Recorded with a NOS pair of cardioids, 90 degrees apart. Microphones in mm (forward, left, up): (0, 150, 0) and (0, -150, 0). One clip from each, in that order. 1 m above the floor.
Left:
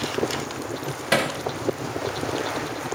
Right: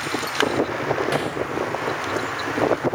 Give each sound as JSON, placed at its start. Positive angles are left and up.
{"t": 1.1, "sound": "hammering", "azimuth_deg": 55, "distance_m": 2.0}